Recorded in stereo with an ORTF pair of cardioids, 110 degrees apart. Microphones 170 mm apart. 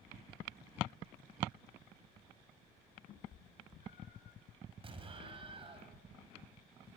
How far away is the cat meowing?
About 6.5 m.